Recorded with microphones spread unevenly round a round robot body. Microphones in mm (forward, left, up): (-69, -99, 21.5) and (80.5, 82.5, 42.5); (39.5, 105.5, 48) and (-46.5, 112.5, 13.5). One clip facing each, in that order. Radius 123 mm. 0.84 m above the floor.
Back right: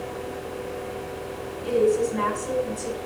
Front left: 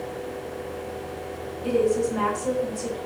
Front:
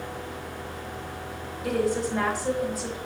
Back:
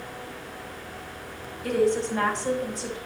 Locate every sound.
1.6 s a woman speaking: 80° left, 4.5 m